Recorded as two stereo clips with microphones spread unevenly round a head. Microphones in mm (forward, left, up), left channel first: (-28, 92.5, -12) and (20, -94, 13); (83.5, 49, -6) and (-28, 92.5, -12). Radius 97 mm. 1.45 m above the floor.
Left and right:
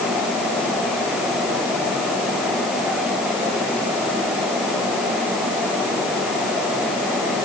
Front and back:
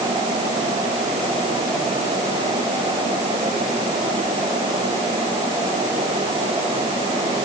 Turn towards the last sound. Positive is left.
No sound to turn to.